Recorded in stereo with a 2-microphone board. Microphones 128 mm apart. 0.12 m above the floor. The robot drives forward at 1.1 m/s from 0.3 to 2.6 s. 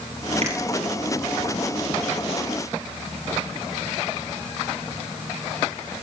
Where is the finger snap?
55° right (ahead or behind), 2 m.